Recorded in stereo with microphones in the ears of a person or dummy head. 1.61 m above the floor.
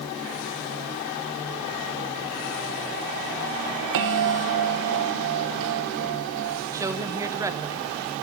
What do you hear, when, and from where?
3.9 s a bell: 60° right (ahead or behind), 1.0 m
6.7 s a woman speaking: 15° right (ahead or behind), 0.8 m